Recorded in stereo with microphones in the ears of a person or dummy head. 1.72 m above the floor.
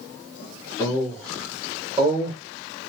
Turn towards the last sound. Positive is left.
turn(degrees=-15)  # may be behind; listen again after turning